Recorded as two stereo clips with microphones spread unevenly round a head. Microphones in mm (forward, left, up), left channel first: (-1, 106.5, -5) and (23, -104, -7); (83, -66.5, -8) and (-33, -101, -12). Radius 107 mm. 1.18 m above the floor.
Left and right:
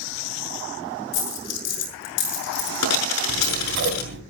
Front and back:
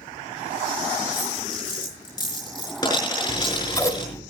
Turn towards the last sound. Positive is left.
turn(degrees=-50)